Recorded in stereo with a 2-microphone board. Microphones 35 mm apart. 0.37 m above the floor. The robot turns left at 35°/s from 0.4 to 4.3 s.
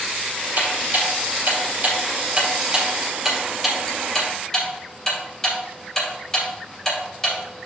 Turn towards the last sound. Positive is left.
turn(degrees=20)  # may be behind; listen again after turning